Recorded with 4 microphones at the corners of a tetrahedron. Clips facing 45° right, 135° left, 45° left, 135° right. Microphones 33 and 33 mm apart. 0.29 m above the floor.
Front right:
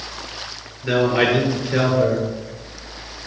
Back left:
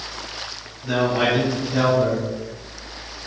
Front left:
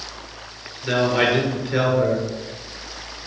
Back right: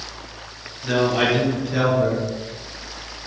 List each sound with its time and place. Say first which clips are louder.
0.8 s a man speaking: front right 3 dB, even; 25° right, 4 m